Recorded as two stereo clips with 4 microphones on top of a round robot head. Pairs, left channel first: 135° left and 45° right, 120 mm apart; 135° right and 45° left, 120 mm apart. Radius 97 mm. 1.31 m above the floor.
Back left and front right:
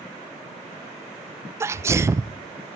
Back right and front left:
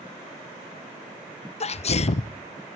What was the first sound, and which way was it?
A sneeze, 110° right.